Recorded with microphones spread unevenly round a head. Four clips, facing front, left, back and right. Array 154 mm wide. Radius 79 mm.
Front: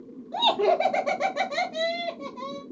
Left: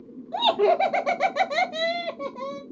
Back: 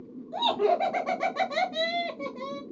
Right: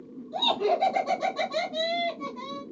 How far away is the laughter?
About 1.4 m.